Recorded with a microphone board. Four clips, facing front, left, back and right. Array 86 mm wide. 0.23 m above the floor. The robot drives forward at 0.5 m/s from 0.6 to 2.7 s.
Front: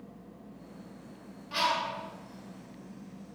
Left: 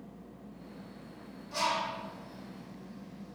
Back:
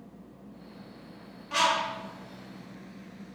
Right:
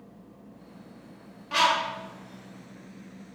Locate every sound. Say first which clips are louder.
1.5 s a bird: right 8 dB, back 3 dB; 105° right, 0.9 m; by 3.4 s 135° right, 1.2 m